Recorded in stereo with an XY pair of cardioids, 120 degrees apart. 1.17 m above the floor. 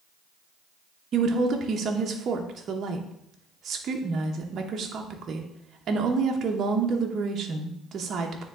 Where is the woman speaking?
45° right, 0.9 m.